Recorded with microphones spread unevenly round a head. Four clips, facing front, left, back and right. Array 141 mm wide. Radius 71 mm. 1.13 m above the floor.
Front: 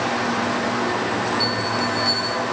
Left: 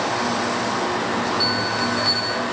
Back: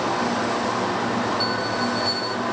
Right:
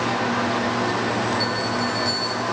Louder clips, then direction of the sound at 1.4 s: Left 1 dB, front 1 dB; 50° left.